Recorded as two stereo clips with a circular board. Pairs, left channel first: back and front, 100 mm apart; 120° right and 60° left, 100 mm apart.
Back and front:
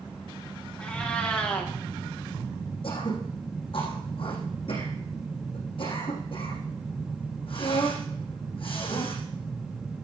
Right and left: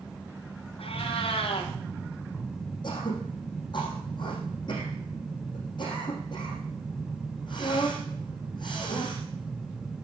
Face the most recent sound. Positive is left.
turn(degrees=-155)